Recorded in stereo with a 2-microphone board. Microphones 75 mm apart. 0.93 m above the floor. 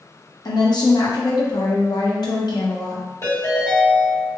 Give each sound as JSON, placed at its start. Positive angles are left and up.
{"t": 0.5, "sound": "a woman speaking", "side_deg": 70, "distance_m": 0.8}
{"t": 3.2, "sound": "a ringtone", "side_deg": 45, "distance_m": 1.9}